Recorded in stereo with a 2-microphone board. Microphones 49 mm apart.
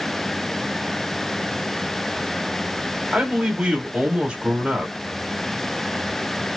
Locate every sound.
3.1 s a man speaking: 20° right (ahead or behind), 2 m